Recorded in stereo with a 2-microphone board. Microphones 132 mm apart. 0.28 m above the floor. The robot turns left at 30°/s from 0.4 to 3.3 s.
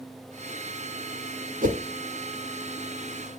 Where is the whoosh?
80° right, 0.6 m.